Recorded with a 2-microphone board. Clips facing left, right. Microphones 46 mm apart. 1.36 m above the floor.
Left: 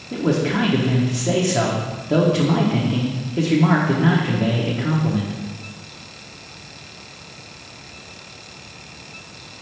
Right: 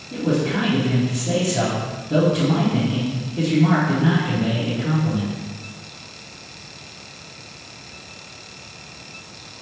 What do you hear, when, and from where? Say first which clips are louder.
0.1 s a man speaking: left 1 dB; 70° left (ahead or behind), 0.7 m